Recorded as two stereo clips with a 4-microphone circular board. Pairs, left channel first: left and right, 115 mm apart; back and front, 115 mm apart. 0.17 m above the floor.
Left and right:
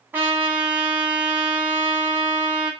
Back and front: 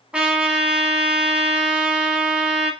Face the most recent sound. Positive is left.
turn(degrees=-65)